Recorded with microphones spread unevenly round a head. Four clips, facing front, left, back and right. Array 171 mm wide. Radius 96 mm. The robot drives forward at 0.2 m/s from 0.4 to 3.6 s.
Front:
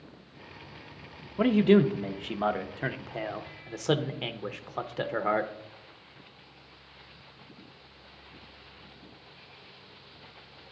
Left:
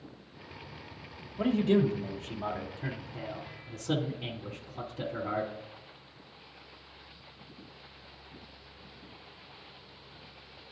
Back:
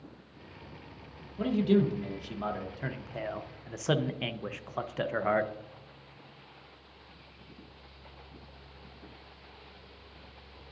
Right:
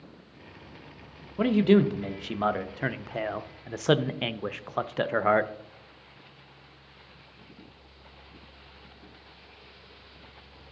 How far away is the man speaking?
About 0.8 m.